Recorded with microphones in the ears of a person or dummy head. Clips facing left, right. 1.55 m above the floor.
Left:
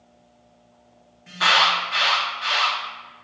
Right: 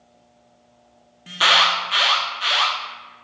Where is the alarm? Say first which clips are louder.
Right 1 dB; 50° right (ahead or behind), 0.6 m.